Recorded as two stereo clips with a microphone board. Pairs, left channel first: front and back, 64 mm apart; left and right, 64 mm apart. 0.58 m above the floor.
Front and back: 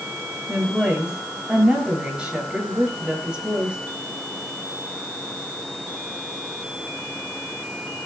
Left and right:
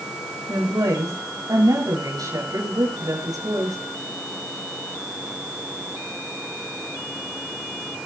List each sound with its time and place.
0.5 s a woman speaking: 105° right, 8 m